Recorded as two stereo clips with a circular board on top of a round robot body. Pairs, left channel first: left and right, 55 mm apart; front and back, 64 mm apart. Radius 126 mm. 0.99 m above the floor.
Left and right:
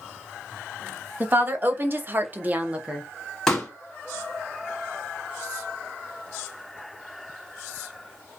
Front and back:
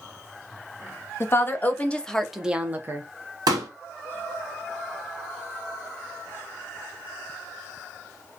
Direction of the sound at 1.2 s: 45° right.